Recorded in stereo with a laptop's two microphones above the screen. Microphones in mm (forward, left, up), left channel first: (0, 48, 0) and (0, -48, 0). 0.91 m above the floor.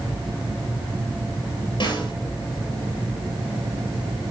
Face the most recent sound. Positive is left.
turn(degrees=55)  # may be behind; listen again after turning